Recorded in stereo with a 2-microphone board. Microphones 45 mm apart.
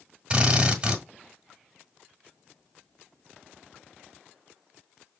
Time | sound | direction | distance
0.3 | a drill | 25° right (ahead or behind) | 1.3 m